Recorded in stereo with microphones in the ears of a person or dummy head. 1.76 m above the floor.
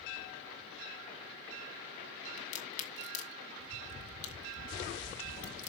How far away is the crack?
About 3 m.